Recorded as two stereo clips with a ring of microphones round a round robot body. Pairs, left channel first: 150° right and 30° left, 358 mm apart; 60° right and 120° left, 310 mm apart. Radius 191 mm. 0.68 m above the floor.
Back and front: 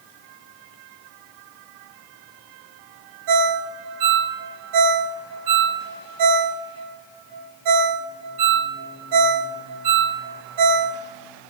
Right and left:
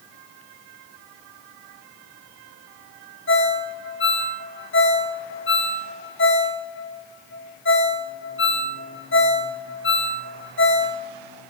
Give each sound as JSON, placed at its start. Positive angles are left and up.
{"t": 3.3, "sound": "a ringtone", "azimuth_deg": -10, "distance_m": 2.5}